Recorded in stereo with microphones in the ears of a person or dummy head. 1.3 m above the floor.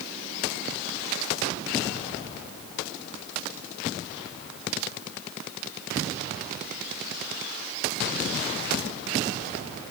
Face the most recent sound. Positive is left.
No sound to turn to.